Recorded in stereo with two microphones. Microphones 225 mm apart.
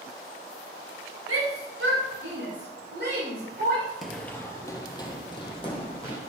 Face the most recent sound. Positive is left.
turn(degrees=25)  # may be behind; listen again after turning